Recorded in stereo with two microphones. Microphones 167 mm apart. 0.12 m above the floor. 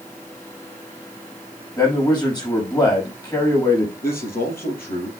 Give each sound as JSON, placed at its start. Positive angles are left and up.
{"t": 1.8, "sound": "a man speaking", "side_deg": 25, "distance_m": 5.5}
{"t": 4.0, "sound": "a man speaking", "side_deg": 65, "distance_m": 3.5}